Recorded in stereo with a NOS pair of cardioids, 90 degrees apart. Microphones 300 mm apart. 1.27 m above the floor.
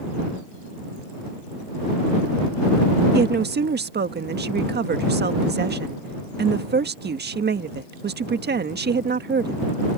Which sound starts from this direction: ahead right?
A woman speaking, at 3.1 s.